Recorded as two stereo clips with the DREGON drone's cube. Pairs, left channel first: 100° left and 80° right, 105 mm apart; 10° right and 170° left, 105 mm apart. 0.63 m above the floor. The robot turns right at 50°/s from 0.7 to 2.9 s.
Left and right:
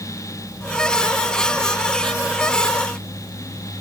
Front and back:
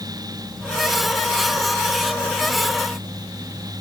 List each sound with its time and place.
Only background noise.